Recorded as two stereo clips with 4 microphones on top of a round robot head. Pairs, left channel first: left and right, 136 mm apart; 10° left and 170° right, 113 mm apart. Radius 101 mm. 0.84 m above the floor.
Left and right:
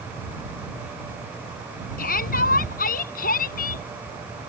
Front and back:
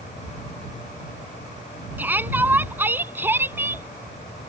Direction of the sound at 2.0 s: 120° left.